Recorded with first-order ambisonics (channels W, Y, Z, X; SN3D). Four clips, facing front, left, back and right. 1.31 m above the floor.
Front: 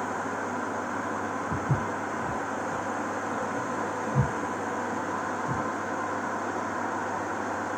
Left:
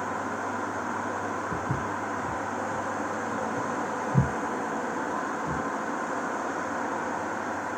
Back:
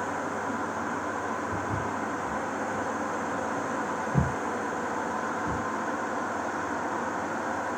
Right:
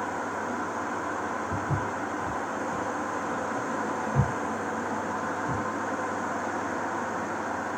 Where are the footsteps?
15° right, 1.4 m; by 5.6 s 135° left, 2.5 m.